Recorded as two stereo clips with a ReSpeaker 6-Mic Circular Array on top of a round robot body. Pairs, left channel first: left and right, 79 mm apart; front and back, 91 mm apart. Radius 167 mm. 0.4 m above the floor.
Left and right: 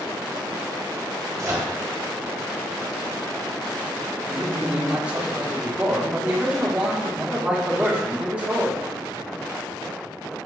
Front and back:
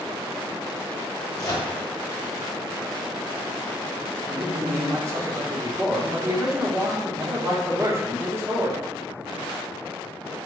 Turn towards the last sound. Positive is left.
turn(degrees=-150)